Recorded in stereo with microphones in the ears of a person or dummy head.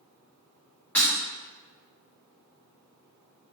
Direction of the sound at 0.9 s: 15° left (ahead or behind).